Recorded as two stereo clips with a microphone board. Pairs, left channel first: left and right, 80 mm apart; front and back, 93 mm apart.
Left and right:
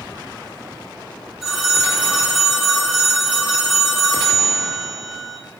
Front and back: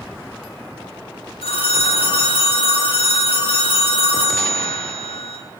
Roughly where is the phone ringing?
Ahead.